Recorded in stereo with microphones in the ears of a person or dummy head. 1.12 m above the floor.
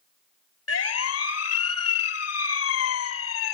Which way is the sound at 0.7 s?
80° left.